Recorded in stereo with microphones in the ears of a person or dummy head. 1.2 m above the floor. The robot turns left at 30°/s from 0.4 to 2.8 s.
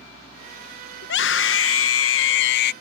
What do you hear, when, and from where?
1.0 s a scream: 120° left; by 2.7 s 70° left